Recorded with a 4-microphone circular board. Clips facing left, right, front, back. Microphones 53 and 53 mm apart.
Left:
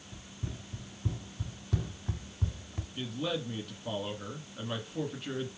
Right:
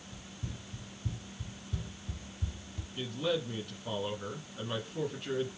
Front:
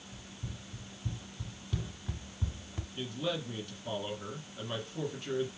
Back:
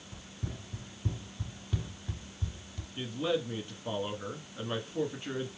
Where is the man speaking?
170° left, 1.3 m.